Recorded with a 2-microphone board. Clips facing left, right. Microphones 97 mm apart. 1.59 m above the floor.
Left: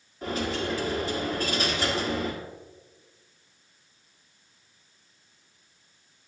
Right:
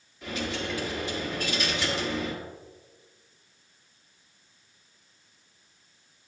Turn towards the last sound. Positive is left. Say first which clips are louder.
# left 3 dB
turn(degrees=40)  # may be behind; listen again after turning